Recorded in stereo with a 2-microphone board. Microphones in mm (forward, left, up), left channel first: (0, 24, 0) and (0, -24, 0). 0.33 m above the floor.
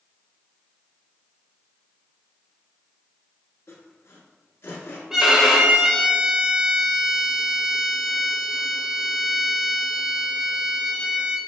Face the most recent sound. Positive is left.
turn(degrees=-10)  # may be behind; listen again after turning